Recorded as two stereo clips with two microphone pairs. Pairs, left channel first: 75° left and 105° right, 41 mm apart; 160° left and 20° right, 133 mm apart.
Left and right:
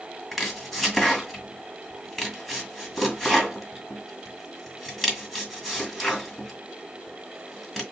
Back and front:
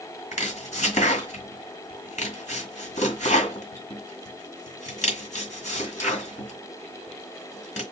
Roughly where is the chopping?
Behind.